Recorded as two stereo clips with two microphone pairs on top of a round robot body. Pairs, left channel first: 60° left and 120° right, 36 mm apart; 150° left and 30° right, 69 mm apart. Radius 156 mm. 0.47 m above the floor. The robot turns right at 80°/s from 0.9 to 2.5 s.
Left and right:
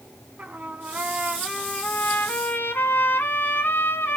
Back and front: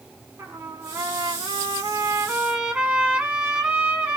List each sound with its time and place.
0.4 s a trumpet: 90° right, 1.0 m; by 4.2 s 40° left, 1.0 m